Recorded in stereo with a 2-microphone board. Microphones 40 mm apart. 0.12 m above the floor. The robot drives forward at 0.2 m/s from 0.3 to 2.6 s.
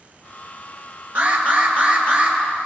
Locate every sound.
1.1 s an alarm: 40° right (ahead or behind), 2.5 m; by 2.4 s 35° right (ahead or behind), 2.5 m